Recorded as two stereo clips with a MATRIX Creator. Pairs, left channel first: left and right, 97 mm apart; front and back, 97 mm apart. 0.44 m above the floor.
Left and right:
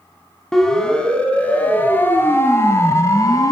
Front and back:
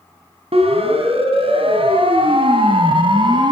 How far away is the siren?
About 4 m.